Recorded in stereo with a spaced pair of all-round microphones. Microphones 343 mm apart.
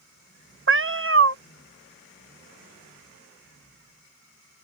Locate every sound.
0.7 s a cat meowing: 40° right (ahead or behind)